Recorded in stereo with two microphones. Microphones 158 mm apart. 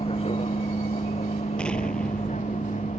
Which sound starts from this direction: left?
A vehicle, at 0.0 s.